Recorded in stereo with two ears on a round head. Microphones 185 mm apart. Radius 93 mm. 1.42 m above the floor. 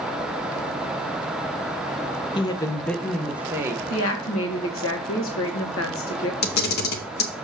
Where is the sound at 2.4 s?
25° left (ahead or behind), 0.8 m; by 3.8 s 15° right (ahead or behind), 1.1 m.